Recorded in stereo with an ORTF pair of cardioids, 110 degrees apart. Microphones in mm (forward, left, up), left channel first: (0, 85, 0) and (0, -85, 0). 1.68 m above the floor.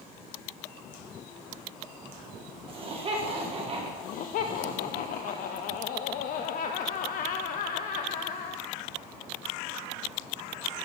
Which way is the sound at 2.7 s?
35° right.